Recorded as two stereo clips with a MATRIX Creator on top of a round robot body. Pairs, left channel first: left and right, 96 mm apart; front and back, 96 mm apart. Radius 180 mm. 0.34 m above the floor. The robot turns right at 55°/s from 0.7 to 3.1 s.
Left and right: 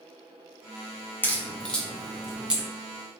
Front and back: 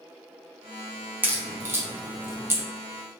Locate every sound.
1.2 s a crack: 130° left, 1.1 m; by 2.6 s 150° right, 1.1 m